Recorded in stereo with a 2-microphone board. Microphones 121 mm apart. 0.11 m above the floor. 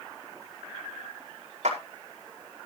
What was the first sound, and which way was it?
A clap, 75° right (ahead or behind).